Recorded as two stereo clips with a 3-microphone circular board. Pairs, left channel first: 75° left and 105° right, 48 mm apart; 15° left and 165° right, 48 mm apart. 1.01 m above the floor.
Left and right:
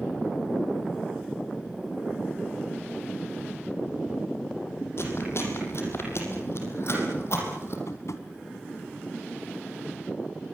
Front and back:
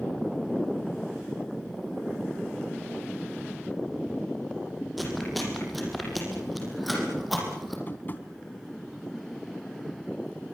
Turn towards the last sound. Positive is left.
turn(degrees=65)